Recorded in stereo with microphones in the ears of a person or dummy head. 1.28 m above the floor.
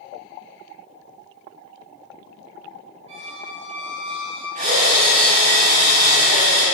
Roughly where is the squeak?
Right.